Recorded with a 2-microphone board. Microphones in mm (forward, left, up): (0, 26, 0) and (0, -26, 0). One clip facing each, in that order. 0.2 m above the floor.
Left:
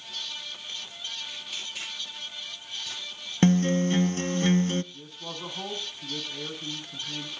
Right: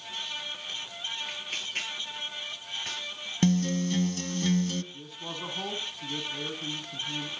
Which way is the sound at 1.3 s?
45° right (ahead or behind).